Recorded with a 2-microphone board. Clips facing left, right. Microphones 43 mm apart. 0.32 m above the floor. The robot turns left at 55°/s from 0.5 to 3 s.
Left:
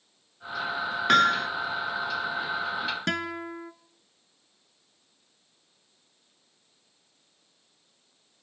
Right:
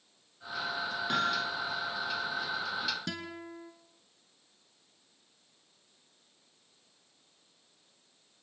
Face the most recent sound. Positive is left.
turn(degrees=60)  # may be behind; listen again after turning